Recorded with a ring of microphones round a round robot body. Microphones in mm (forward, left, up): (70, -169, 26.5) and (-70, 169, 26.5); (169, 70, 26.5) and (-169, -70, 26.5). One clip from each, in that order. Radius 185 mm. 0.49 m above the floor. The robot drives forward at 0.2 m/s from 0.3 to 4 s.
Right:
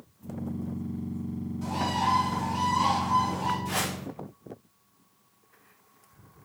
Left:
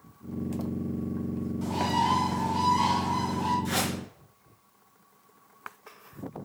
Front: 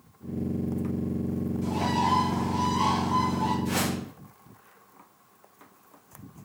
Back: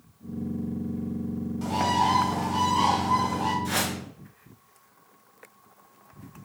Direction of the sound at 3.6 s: 165° left.